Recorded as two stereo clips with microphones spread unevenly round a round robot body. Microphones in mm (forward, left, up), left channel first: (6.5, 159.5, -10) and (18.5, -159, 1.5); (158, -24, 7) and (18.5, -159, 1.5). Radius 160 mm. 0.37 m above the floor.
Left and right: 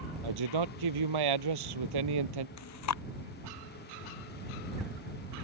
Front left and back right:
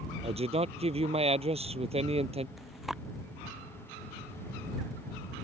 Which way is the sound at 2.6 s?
135° left.